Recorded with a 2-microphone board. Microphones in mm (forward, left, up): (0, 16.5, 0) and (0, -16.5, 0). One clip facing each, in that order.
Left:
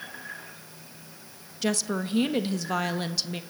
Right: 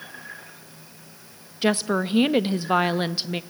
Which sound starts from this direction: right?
A woman speaking, at 1.6 s.